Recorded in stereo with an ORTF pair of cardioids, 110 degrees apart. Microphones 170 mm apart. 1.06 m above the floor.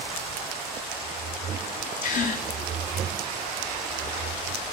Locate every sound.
2.0 s a gasp: 50° left, 6.5 m